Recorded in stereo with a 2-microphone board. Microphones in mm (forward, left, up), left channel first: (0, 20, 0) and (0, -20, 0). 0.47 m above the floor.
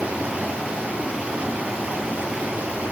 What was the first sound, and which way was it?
Running water, 30° right (ahead or behind).